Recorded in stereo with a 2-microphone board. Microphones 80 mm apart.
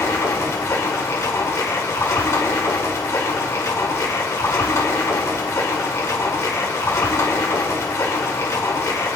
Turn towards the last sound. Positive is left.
turn(degrees=35)  # may be behind; listen again after turning